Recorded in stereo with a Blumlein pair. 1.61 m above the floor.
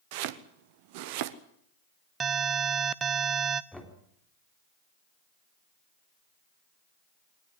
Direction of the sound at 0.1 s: 45° right.